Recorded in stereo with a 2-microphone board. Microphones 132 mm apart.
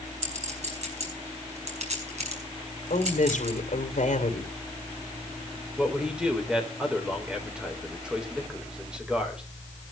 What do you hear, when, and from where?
0.2 s a clink: 60° right (ahead or behind), 4.5 m
2.9 s a woman speaking: 70° left (ahead or behind), 3 m
5.8 s a man speaking: 5° right (ahead or behind), 4 m